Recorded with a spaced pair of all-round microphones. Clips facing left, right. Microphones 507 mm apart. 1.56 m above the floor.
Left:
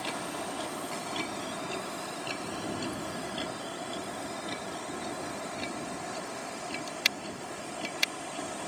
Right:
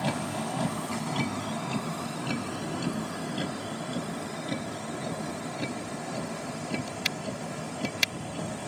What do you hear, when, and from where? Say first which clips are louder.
0.0 s a vehicle: right 6 dB; 75° right (ahead or behind); by 8.7 s 65° right (ahead or behind)